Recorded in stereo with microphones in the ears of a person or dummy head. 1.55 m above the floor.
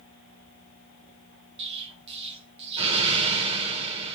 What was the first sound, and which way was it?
An explosion, 35° right (ahead or behind).